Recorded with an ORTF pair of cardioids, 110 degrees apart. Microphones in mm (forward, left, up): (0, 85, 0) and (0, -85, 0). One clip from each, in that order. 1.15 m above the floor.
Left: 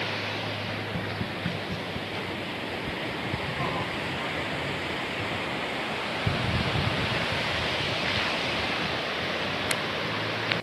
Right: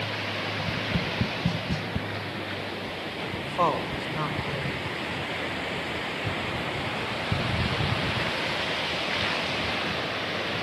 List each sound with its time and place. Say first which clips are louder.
0.6 s tapping: right 3 dB; 35° right, 0.7 m
3.4 s a woman speaking: right 8 dB; 65° right, 4.5 m